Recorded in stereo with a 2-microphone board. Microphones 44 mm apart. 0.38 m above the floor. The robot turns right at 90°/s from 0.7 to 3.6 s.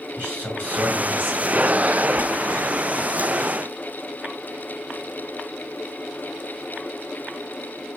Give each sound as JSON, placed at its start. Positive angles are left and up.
{"t": 0.2, "sound": "a man speaking", "azimuth_deg": -105, "distance_m": 2.0}